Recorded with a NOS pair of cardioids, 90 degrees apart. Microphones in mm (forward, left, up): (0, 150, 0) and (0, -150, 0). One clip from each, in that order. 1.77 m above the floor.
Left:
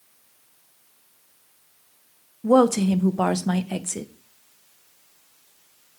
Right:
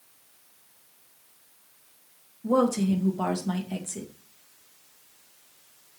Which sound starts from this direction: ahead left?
A woman speaking, at 2.4 s.